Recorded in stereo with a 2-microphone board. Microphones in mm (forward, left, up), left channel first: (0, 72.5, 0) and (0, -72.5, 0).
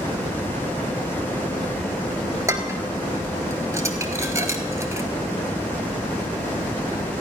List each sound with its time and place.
2.5 s dishes clattering: 20° right (ahead or behind), 1.1 m